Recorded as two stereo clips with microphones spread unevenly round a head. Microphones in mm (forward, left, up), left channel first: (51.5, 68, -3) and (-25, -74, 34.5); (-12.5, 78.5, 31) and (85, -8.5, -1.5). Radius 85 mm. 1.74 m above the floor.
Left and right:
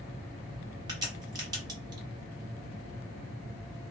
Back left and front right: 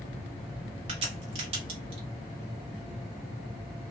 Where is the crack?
90° right, 1.3 m.